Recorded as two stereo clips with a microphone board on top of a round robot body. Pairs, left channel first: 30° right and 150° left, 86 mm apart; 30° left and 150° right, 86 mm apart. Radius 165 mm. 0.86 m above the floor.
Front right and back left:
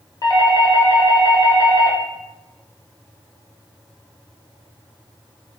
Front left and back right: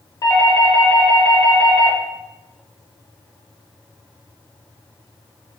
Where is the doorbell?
Straight ahead, 1.4 m.